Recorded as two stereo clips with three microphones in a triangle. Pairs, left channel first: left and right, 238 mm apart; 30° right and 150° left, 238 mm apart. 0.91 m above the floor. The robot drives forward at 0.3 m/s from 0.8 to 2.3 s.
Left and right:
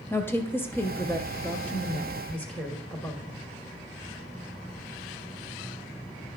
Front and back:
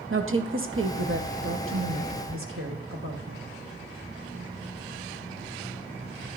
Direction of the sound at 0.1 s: 170° left.